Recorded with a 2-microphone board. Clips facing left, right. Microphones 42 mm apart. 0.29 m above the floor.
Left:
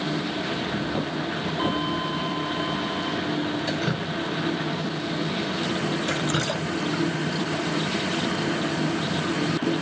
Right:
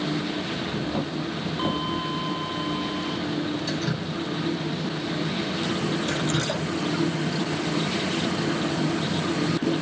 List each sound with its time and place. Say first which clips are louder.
3.7 s dripping: left 2 dB; 30° left (ahead or behind), 1.7 m